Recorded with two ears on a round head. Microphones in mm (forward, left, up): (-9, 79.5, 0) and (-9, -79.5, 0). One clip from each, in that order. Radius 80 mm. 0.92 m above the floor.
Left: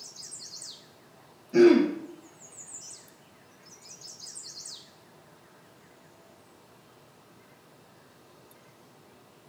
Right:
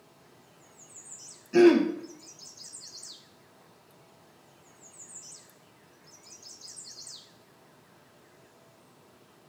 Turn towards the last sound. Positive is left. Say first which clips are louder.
# left 1 dB
turn(degrees=-30)  # may be behind; listen again after turning